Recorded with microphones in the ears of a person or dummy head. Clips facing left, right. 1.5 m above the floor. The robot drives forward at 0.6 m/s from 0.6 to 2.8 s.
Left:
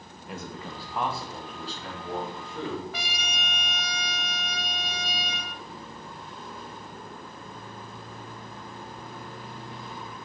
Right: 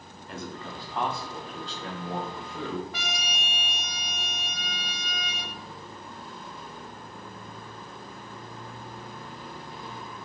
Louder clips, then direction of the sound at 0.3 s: Even; 5° left (ahead or behind).